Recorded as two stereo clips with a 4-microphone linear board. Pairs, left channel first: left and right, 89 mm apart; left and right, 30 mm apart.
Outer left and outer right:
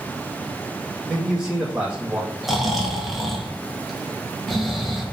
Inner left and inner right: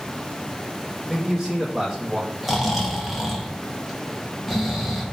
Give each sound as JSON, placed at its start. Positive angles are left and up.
{"t": 1.1, "sound": "a man speaking", "side_deg": -15, "distance_m": 2.0}
{"t": 2.4, "sound": "snoring", "side_deg": 0, "distance_m": 1.9}